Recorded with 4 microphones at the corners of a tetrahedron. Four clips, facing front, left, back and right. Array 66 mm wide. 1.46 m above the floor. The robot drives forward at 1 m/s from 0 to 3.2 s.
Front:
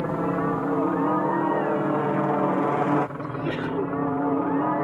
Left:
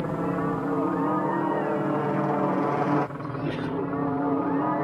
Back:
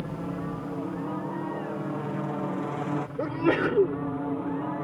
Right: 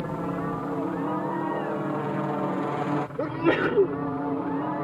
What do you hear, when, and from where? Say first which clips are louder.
0.0 s a helicopter: left 3 dB, front 9 dB; 15° left; by 4.8 s 20° left
3.2 s a sneeze: right 7 dB, back 4 dB; 120° right